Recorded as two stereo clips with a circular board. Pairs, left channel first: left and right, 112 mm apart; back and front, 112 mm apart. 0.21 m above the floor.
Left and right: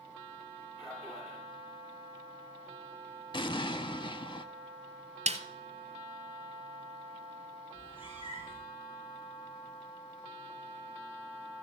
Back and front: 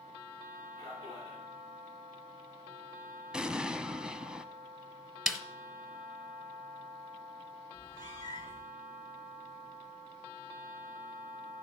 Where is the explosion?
80° left, 0.5 m.